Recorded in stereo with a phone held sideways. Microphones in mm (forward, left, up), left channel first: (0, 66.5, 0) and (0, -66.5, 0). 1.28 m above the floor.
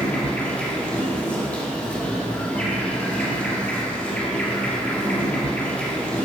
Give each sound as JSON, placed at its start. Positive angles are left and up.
{"t": 0.0, "sound": "an insect", "side_deg": 10, "distance_m": 1.7}